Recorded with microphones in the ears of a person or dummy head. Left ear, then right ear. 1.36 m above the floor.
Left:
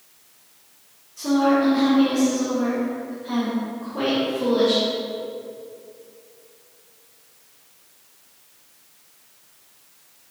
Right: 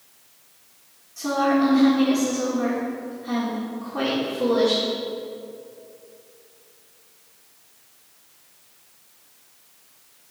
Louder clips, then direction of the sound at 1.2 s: Left 1 dB; 50° right (ahead or behind).